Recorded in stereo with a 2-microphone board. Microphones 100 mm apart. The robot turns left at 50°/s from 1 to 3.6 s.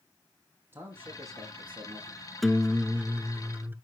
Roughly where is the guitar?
Centre.